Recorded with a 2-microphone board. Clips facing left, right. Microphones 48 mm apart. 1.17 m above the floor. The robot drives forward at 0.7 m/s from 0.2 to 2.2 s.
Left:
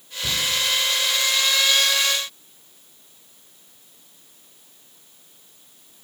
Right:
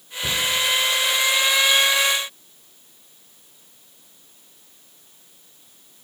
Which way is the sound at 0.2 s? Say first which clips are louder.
Right 2 dB; 20° right (ahead or behind).